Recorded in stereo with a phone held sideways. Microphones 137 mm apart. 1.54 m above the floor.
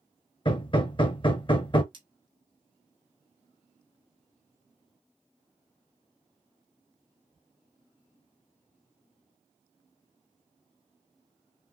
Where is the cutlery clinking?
35° right (ahead or behind), 1.4 m.